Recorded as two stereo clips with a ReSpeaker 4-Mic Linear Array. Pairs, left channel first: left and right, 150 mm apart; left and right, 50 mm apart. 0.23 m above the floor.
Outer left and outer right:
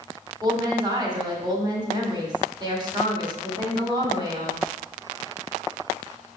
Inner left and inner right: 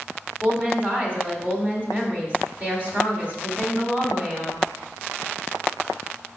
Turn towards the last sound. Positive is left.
turn(degrees=-30)  # may be behind; listen again after turning